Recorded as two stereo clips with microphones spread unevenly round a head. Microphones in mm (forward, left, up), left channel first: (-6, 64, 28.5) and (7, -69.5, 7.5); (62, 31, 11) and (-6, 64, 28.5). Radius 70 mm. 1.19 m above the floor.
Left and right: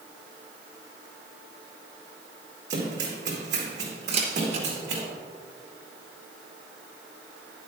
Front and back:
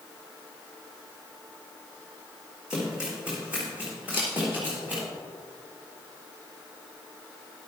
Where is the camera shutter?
130° right, 3 m.